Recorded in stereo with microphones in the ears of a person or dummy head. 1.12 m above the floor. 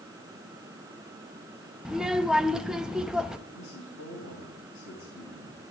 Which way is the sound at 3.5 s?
60° left (ahead or behind).